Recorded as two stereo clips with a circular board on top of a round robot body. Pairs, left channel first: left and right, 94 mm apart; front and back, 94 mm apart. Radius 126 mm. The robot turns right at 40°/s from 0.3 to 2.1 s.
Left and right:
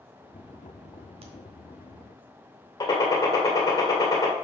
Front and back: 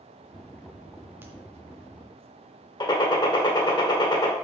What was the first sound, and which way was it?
A crack, 110° right.